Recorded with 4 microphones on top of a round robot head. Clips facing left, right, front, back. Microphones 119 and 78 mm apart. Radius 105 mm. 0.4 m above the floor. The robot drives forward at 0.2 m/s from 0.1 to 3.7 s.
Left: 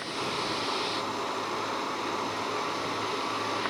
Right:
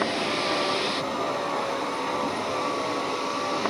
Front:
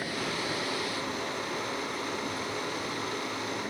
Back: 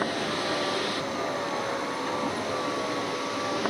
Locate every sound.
0.0 s a vehicle: 130° right; by 3.7 s 145° right